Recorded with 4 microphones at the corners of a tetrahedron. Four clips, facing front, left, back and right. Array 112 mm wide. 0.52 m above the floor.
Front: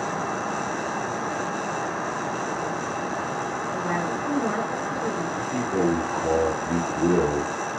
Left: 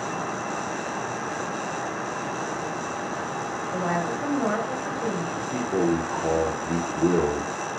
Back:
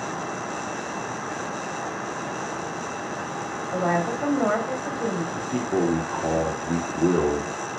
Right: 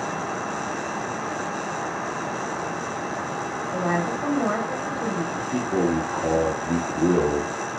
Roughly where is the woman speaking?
Behind.